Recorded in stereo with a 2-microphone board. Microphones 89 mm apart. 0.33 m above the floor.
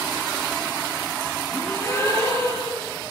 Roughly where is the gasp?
Left.